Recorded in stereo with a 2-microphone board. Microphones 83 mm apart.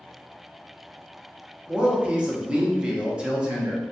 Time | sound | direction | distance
1.7 | a man speaking | 15° right (ahead or behind) | 0.7 m